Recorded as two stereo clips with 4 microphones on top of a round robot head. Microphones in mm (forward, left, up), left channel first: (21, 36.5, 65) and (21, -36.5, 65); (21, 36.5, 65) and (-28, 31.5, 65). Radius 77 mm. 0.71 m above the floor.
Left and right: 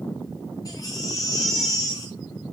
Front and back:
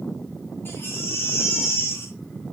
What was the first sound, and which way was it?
A baby crying, 50° left.